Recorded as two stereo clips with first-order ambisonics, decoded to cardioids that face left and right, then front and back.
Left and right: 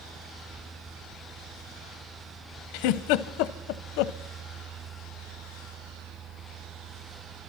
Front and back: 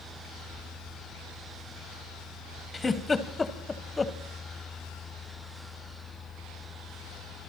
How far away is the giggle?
About 0.8 m.